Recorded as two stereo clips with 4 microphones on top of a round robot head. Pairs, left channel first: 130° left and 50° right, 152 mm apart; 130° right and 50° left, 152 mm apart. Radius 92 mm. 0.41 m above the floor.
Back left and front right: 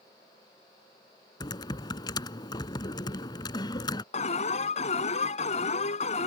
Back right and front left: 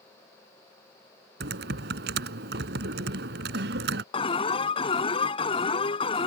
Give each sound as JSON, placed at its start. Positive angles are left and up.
{"t": 1.4, "sound": "typing on a keyboard", "azimuth_deg": 65}
{"t": 4.1, "sound": "an alarm", "azimuth_deg": 175}